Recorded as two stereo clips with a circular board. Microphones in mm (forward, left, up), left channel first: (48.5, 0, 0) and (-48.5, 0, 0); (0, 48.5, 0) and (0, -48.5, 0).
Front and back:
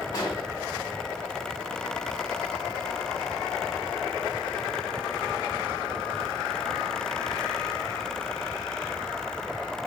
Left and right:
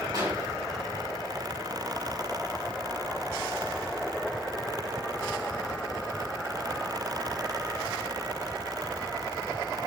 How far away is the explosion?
About 3.5 m.